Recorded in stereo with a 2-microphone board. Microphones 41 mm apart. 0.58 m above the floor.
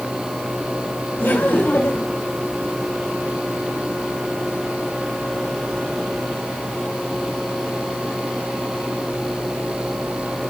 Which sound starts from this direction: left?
Laughter, at 1.2 s.